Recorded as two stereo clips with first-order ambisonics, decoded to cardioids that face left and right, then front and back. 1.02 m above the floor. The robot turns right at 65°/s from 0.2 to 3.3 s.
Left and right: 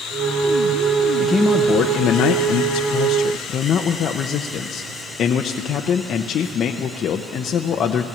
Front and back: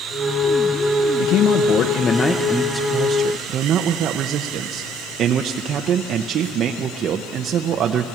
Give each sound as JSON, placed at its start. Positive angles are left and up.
{"t": 1.2, "sound": "a man speaking", "azimuth_deg": -5, "distance_m": 0.7}